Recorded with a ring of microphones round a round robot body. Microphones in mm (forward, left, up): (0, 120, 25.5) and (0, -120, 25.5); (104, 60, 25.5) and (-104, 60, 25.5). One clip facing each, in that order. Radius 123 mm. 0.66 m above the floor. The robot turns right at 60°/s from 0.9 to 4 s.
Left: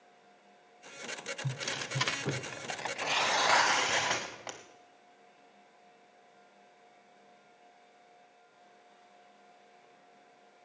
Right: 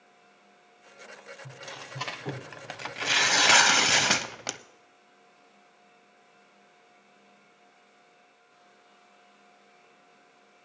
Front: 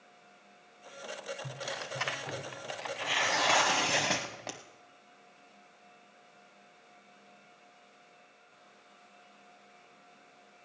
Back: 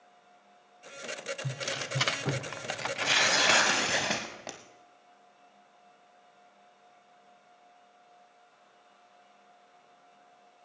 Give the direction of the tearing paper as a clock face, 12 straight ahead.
8 o'clock.